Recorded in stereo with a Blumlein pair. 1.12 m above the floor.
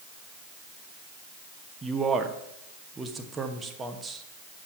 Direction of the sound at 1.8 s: 15° right.